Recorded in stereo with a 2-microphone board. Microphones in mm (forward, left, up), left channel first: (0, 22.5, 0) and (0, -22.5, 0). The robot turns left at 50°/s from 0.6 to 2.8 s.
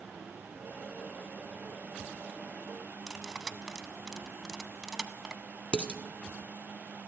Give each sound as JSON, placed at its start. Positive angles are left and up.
{"t": 3.1, "sound": "cutlery clinking", "side_deg": -5, "distance_m": 0.6}
{"t": 5.7, "sound": "dishes clattering", "side_deg": 35, "distance_m": 1.1}